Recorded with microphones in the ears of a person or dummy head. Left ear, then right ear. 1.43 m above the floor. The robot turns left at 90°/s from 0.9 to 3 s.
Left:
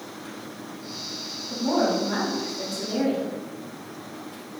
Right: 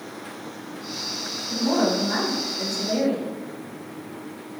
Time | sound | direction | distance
1.5 | a woman speaking | 5° right | 2 m